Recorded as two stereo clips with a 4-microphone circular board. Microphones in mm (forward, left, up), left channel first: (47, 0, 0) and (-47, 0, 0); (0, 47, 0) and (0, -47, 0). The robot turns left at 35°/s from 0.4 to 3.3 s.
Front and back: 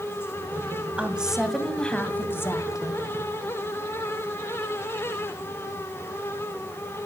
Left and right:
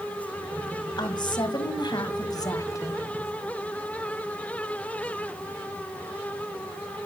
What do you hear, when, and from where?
1.0 s a woman speaking: 110° left, 1.8 m; by 3.0 s 35° left, 1.8 m